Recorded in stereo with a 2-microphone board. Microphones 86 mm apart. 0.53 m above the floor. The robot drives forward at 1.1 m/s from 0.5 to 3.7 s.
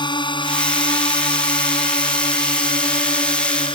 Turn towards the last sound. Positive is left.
turn(degrees=80)